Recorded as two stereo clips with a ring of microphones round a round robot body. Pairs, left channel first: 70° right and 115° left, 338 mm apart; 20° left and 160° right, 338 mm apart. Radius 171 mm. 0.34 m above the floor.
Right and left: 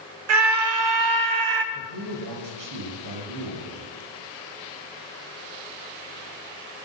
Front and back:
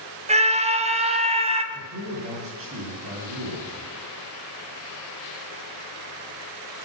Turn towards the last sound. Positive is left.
turn(degrees=150)